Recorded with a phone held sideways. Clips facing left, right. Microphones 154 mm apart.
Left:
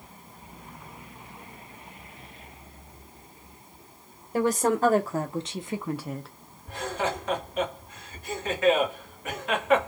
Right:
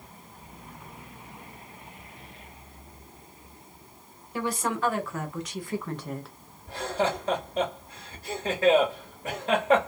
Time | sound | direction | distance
4.3 | a woman speaking | 45° left (ahead or behind) | 1.0 m
6.7 | laughter | 35° right (ahead or behind) | 1.6 m